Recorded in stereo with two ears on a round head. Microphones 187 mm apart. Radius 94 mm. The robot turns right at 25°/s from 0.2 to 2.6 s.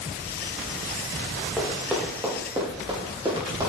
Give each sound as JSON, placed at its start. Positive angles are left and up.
{"t": 1.6, "sound": "running footsteps", "side_deg": 5, "distance_m": 5.0}